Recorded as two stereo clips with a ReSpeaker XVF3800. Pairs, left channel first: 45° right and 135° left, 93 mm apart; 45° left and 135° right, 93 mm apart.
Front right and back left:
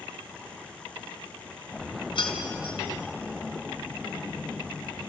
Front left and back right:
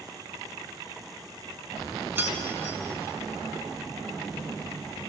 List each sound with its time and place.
2.1 s keys jangling: 70° right, 2.5 m